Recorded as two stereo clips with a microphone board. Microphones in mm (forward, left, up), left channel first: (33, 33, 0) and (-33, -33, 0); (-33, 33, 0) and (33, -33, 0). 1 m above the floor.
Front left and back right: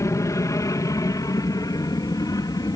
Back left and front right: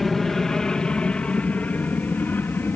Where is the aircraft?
50° left; by 2.8 s 75° left.